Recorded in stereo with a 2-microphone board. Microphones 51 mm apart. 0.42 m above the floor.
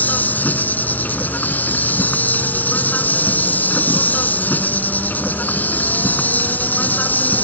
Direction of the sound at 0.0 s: 35° left (ahead or behind).